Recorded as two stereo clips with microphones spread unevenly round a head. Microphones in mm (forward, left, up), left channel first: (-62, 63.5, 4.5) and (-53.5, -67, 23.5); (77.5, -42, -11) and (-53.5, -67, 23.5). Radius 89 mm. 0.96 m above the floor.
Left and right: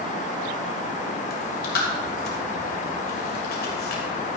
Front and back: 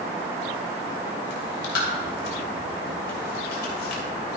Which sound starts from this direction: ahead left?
Chewing, at 1.3 s.